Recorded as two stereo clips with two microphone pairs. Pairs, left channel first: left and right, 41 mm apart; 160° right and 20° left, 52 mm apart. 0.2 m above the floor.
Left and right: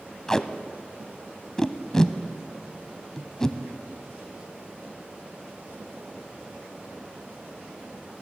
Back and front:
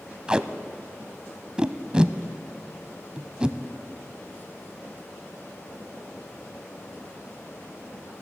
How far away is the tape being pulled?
About 0.5 m.